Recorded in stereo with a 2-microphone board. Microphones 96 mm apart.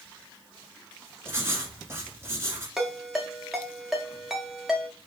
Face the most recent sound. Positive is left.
turn(degrees=-5)  # may be behind; listen again after turning